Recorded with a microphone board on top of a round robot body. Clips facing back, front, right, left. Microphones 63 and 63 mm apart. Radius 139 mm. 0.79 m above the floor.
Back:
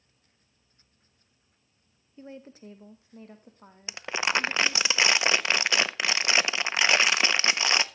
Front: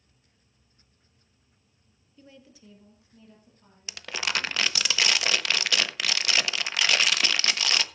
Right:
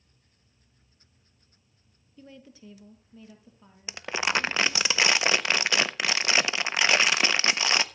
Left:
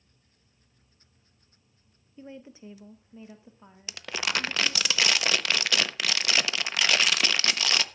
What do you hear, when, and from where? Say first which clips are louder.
2.2 s a woman speaking: back 8 dB, left 4 dB; 140° left, 1.1 m; by 4.9 s 155° left, 2.5 m
3.9 s crumpling: back 3 dB, right 3 dB; 135° right, 1.0 m